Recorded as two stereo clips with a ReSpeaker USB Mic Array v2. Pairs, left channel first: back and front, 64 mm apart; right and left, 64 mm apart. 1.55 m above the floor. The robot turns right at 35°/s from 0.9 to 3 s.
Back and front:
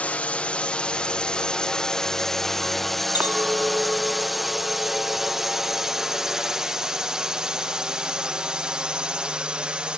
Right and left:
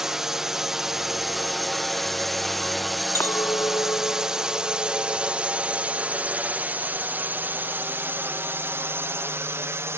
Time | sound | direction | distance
0.0 | a drone | 165° left | ?
3.1 | a clink | 55° right | ?